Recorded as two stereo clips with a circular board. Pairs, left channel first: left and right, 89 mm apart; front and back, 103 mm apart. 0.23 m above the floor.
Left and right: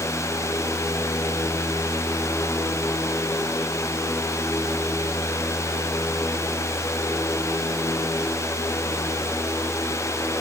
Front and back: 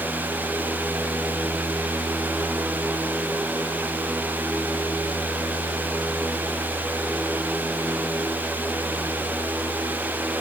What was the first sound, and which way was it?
Only background noise.